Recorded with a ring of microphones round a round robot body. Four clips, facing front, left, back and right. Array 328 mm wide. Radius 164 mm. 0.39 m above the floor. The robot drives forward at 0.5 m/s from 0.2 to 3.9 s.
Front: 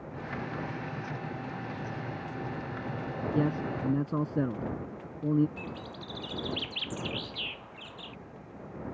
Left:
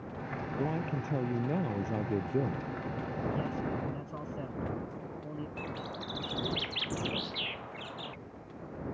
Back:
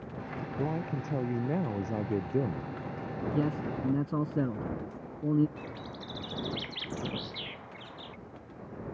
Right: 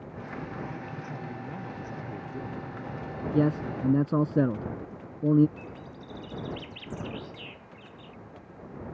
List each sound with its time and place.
0.6 s a man speaking: 145° left; by 2.7 s 150° left
3.3 s a man speaking: 85° right; by 5.5 s 90° right
5.6 s a bird: 100° left